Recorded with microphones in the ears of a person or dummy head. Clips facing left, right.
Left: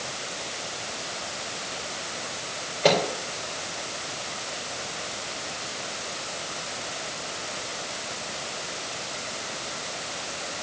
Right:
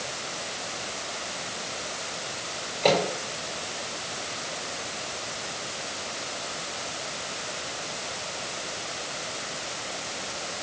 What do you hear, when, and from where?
2.8 s a microwave: 10° left (ahead or behind), 4 m